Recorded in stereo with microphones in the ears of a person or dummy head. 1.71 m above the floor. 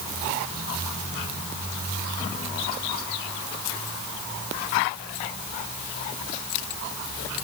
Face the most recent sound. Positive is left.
No sound to turn to.